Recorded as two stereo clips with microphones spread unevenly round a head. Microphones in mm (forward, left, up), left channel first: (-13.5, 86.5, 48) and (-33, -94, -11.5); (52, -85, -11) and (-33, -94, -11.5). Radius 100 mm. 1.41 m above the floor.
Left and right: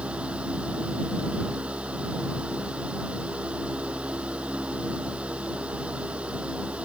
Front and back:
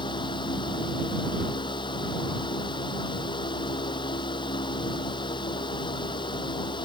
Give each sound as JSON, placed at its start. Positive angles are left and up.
{"t": 0.0, "sound": "a fan", "azimuth_deg": -10}